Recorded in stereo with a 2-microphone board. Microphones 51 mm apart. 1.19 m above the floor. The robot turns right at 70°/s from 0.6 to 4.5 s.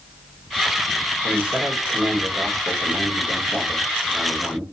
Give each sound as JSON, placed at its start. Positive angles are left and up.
{"t": 1.2, "sound": "a man speaking", "azimuth_deg": -165, "distance_m": 1.8}